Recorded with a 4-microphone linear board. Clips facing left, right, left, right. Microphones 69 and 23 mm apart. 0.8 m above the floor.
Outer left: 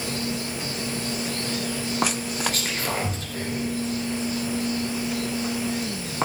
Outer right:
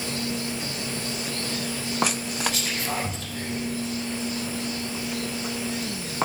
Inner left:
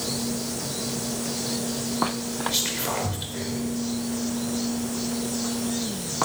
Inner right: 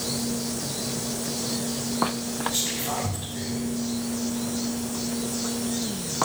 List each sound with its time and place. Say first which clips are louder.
2.5 s whispering: outer left 1 dB, inner left 3 dB; 55° left (ahead or behind), 3 m